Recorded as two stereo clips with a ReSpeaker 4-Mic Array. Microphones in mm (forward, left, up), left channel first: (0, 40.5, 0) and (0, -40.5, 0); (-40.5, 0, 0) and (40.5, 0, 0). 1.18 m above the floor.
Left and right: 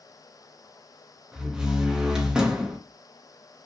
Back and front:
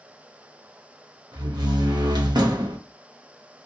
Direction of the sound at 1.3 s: 10° right.